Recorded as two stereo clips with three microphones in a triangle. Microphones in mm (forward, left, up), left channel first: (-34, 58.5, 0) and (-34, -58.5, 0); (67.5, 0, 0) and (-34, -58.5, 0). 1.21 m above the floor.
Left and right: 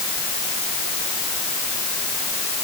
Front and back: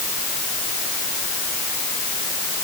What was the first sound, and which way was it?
Only background noise.